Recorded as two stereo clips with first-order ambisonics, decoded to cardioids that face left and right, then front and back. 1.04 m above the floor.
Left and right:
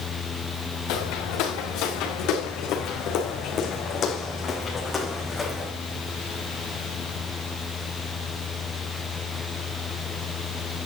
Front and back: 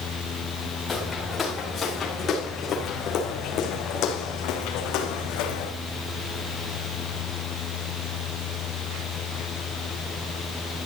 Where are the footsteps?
70° left, 4 m; by 5.7 s 5° left, 3 m.